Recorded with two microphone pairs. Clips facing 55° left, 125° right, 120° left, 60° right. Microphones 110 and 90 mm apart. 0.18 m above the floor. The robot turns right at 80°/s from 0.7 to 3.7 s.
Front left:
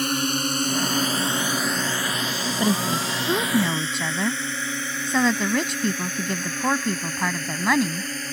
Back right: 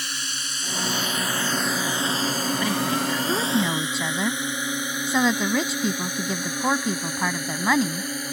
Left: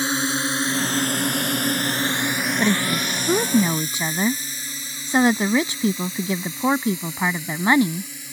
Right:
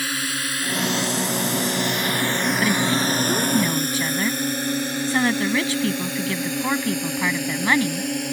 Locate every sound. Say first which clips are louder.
0.0 s a drone: front left 12 dB, left 5 dB; 65° left; by 8.3 s 50° right
2.6 s a woman speaking: front left 4 dB, left 1 dB; 65° left; by 8.1 s 155° left